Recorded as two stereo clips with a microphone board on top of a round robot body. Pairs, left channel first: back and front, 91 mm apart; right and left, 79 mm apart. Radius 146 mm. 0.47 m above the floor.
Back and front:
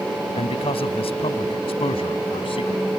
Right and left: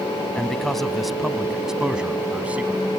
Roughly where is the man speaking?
Behind.